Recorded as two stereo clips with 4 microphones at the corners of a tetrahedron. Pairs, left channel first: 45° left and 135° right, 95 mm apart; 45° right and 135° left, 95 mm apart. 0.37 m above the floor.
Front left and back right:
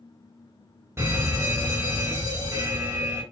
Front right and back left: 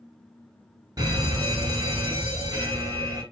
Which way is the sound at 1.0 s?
170° left.